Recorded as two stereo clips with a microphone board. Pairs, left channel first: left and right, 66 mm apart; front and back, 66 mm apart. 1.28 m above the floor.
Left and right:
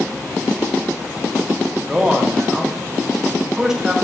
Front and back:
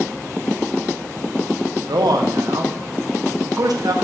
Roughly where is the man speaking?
Behind.